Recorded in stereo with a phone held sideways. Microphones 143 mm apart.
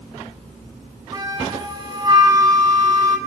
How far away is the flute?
About 4 m.